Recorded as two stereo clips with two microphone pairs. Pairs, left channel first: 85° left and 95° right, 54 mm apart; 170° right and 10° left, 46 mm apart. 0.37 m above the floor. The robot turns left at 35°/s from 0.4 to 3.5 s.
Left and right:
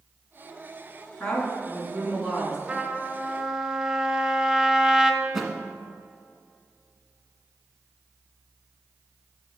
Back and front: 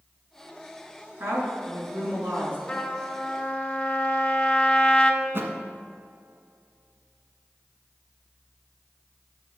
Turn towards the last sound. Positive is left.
turn(degrees=-15)